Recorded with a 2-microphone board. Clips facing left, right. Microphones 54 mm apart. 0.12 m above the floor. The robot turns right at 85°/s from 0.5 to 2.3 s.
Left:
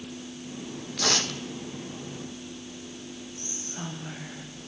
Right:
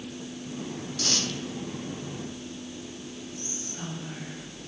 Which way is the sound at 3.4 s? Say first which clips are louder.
Right 1 dB; 40° left (ahead or behind).